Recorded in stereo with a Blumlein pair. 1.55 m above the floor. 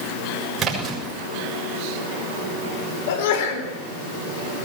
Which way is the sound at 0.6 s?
20° right.